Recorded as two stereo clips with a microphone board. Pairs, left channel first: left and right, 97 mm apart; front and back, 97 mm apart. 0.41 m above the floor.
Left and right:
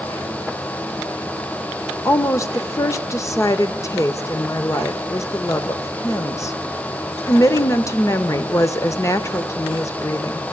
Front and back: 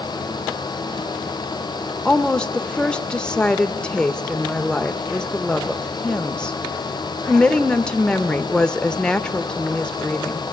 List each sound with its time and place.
2.0 s a woman speaking: 75° left, 0.8 m